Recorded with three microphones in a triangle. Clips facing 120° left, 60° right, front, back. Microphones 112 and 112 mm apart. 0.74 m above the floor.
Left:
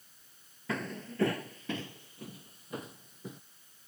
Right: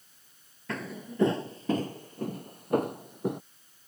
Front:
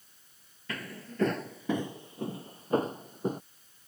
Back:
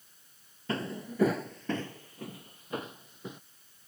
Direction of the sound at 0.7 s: 150° right.